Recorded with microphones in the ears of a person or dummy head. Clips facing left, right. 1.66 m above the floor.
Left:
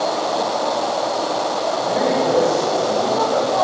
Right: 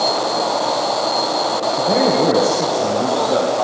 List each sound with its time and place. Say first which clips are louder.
1.8 s a man speaking: right 4 dB; 55° right (ahead or behind), 1.7 m; by 3.5 s 30° right (ahead or behind), 2 m